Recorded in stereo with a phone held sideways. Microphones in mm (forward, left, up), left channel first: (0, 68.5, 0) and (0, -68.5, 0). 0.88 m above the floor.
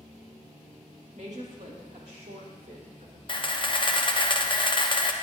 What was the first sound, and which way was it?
A woman speaking, 60° right (ahead or behind).